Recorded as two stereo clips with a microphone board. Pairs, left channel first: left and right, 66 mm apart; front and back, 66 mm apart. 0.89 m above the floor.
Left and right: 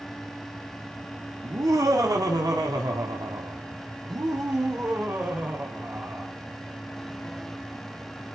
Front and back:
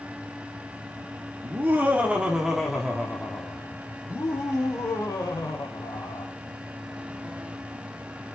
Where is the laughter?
125° right, 2 m; by 6.3 s 25° right, 3.5 m.